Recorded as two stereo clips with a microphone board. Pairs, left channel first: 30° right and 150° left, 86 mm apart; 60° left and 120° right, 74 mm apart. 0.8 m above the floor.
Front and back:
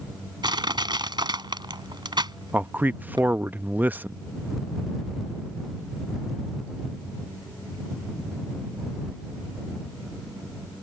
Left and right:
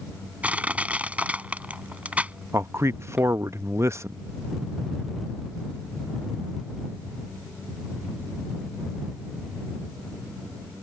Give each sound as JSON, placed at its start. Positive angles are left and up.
{"t": 0.4, "sound": "crushing", "azimuth_deg": 170}
{"t": 2.5, "sound": "a man speaking", "azimuth_deg": -150}